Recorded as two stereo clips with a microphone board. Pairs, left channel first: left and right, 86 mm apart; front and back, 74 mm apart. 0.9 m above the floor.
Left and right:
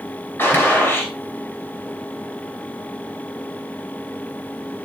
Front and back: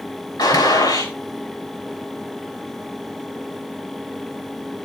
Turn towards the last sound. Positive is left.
turn(degrees=25)